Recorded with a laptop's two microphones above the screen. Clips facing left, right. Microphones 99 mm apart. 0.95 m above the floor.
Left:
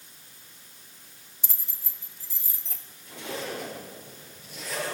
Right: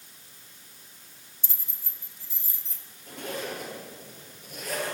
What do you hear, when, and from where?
1.4 s keys jangling: 75° left (ahead or behind), 0.9 m; by 2.9 s 85° left, 2.5 m
3.1 s a zipper: 50° right (ahead or behind), 9.5 m